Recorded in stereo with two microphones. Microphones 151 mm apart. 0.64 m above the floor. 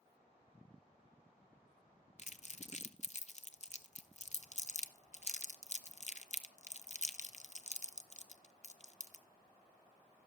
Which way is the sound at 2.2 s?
50° left (ahead or behind).